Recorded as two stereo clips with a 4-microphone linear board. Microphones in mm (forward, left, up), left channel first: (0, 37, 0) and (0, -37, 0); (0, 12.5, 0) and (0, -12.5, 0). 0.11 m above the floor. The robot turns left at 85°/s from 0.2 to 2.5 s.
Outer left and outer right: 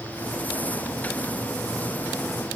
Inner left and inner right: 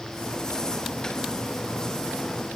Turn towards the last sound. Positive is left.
No sound to turn to.